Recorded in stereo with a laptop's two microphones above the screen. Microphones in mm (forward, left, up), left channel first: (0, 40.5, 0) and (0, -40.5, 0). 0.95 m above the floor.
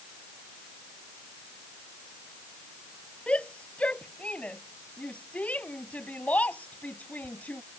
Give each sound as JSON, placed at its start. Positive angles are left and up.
{"t": 3.3, "sound": "a shout", "side_deg": 15}